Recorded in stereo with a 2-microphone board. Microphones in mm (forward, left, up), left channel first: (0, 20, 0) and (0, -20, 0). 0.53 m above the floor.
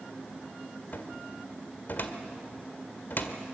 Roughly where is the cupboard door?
Left.